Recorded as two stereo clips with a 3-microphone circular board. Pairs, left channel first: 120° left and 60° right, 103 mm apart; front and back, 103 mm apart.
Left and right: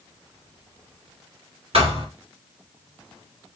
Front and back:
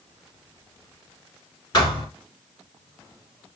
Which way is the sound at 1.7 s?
50° right.